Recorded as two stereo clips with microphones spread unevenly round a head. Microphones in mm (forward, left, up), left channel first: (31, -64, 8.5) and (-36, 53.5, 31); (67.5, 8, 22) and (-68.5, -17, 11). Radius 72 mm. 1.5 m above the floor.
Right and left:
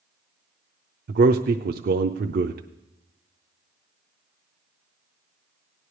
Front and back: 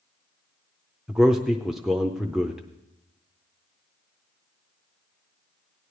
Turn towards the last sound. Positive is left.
turn(degrees=105)